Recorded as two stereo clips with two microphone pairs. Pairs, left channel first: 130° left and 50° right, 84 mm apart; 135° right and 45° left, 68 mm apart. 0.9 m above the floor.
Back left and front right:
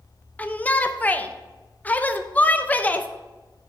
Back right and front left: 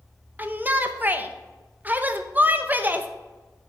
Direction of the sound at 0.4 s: 80° left.